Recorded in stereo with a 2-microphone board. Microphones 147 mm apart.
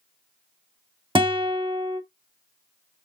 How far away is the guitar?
About 0.7 m.